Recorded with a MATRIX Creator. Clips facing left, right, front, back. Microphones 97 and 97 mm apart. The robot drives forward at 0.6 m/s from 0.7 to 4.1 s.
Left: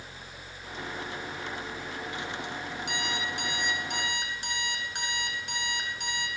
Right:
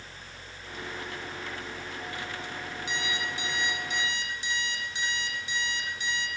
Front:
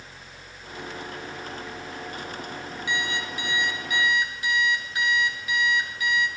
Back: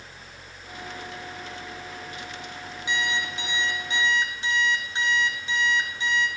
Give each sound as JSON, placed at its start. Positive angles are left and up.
{"t": 2.9, "sound": "an alarm clock", "azimuth_deg": 115, "distance_m": 7.0}